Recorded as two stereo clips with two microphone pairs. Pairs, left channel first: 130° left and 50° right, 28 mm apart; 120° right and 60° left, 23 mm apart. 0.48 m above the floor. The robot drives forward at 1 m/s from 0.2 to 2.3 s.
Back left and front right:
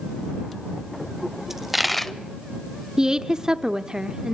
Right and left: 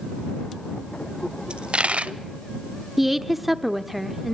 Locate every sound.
1.5 s a dropped coin: 30° left, 1.1 m; by 2.1 s 60° left, 0.7 m
3.0 s a woman speaking: straight ahead, 0.8 m